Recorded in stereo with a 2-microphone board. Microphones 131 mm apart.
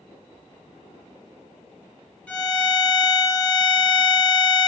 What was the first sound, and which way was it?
A violin, 10° left (ahead or behind).